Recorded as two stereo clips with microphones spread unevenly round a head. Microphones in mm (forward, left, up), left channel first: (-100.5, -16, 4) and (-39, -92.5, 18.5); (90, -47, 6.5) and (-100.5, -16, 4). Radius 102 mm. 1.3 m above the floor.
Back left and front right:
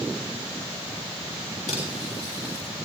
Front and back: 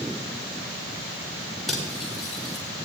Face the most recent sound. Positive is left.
turn(degrees=80)